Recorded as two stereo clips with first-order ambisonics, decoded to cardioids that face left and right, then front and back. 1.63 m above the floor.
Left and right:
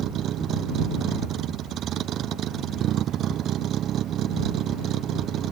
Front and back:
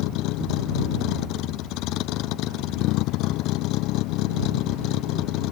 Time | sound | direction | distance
0.0 | a vehicle | 35° right | ?